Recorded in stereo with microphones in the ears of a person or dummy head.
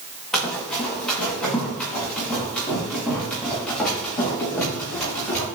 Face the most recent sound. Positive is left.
turn(degrees=10)  # may be behind; listen again after turning